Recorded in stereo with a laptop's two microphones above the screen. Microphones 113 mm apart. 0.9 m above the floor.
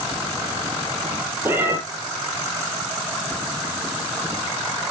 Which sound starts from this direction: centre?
A cat meowing, at 1.4 s.